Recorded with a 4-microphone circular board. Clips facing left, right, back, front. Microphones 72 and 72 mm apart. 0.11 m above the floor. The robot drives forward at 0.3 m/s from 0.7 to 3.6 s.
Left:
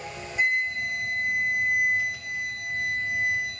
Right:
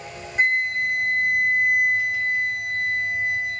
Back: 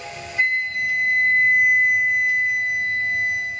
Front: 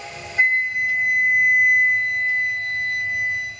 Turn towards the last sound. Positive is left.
turn(degrees=-135)